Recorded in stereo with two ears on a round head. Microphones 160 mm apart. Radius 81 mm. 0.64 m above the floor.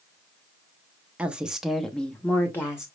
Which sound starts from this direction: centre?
A woman speaking, at 1.2 s.